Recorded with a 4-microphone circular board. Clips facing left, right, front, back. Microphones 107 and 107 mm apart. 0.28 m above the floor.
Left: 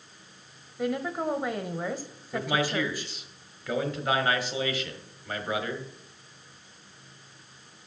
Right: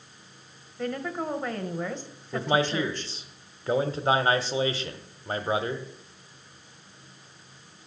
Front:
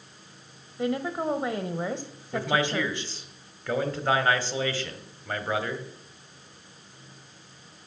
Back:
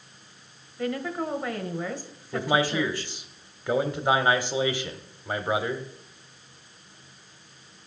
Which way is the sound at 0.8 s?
25° left.